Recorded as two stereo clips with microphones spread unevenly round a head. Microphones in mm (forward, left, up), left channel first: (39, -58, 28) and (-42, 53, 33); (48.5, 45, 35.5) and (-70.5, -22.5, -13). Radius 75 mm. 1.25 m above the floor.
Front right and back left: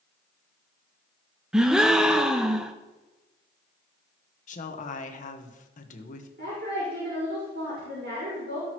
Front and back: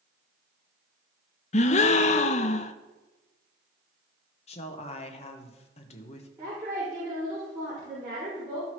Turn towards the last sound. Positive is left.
turn(degrees=140)